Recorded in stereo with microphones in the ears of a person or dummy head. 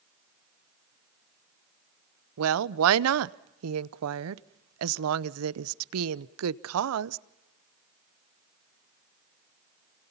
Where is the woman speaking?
80° right, 0.8 m.